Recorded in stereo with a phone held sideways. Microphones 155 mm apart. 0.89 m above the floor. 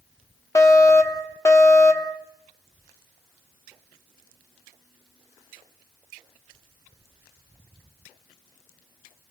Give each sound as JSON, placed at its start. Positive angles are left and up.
{"t": 0.6, "sound": "a fire alarm", "side_deg": 20, "distance_m": 1.5}